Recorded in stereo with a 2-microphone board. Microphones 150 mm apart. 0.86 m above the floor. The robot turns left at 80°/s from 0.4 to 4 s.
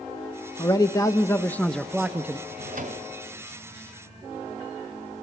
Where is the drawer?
90° right, 1.6 m; by 3.1 s 140° right, 1.6 m.